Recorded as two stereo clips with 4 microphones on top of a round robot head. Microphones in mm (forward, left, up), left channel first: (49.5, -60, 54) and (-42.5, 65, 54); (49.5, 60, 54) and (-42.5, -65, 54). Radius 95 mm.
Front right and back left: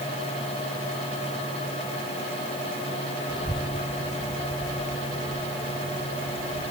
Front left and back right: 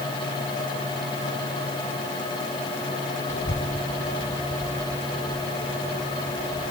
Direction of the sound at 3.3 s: 10° left.